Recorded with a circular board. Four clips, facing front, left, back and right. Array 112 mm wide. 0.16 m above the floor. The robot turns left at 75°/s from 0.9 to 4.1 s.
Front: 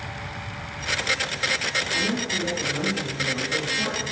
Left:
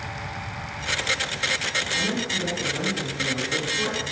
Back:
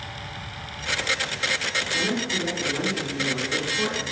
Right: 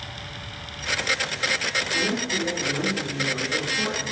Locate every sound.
1.9 s a woman speaking: 40° right, 1.2 m; by 4.0 s 160° left, 1.2 m